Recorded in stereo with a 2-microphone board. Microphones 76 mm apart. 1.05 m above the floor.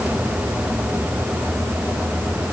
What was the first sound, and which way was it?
Only background noise.